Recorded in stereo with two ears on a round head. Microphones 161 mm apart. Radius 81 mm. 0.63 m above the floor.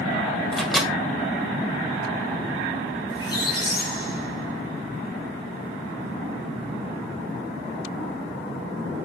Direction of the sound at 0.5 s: Centre (ahead or behind).